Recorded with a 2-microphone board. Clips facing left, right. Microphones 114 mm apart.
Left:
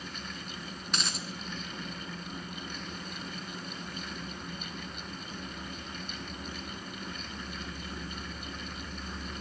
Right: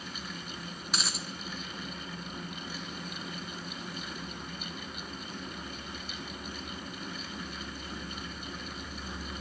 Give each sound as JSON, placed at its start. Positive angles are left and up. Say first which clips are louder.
{"t": 0.9, "sound": "a dropped coin", "louder": "even", "side_deg": -5, "distance_m": 1.0}